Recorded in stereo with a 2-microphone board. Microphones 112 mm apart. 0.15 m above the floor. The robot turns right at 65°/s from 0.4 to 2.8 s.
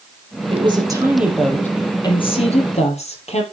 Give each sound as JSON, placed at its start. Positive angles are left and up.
{"t": 0.5, "sound": "a woman speaking", "azimuth_deg": -60, "distance_m": 4.0}